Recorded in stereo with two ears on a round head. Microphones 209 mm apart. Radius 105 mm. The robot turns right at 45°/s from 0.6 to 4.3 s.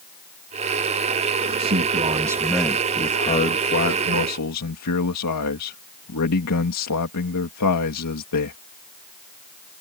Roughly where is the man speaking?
Ahead right.